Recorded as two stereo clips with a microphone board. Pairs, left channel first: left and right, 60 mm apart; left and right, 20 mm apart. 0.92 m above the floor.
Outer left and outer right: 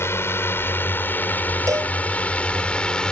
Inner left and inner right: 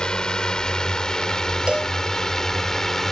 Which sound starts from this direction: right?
A cowbell, at 1.7 s.